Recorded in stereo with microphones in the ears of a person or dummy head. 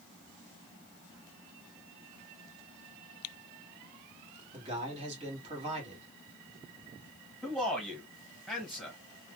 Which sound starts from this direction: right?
A man speaking, at 4.5 s.